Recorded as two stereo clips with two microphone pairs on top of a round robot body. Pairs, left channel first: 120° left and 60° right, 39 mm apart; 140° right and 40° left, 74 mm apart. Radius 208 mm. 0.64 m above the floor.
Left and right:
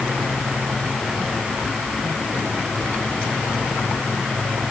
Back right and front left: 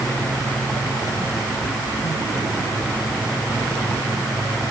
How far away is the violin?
No violin in this recording.